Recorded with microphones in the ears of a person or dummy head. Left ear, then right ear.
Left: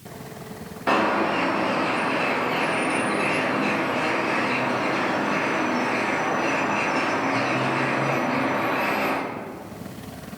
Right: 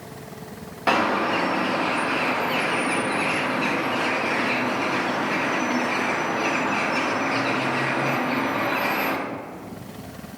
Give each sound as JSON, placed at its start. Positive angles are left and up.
{"t": 0.9, "sound": "a bird", "side_deg": -20, "distance_m": 0.7}